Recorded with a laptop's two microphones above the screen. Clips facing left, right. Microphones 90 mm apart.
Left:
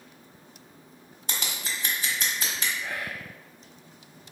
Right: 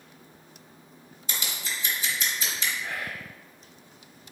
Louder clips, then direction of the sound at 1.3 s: Left 1 dB; 60° left (ahead or behind).